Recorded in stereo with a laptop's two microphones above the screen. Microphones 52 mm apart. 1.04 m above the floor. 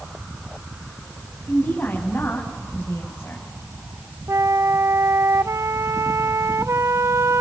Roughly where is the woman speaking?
Left.